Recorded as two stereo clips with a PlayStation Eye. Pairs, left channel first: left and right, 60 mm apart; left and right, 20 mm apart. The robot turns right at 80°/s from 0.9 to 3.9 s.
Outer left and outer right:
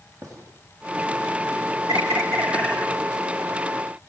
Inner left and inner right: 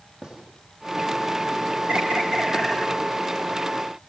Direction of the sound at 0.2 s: 60° right (ahead or behind).